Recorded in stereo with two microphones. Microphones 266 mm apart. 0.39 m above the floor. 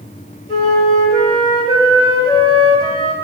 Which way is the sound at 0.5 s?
20° left (ahead or behind).